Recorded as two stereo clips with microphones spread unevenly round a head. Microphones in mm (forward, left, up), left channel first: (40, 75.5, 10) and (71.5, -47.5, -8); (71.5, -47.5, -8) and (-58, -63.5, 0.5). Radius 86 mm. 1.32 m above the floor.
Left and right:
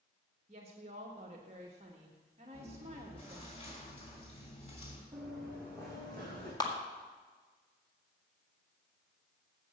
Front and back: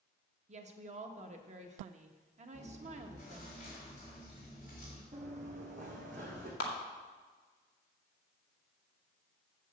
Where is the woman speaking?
135° right, 1.4 m.